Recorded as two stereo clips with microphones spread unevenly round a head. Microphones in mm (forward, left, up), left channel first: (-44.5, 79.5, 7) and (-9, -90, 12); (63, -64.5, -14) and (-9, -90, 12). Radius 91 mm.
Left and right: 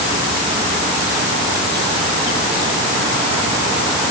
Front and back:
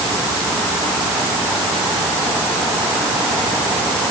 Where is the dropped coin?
No dropped coin in this recording.